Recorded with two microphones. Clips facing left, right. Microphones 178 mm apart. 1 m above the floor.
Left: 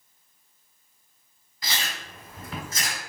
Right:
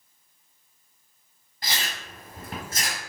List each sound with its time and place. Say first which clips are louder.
1.6 s chewing: even; 55° right (ahead or behind), 1.5 m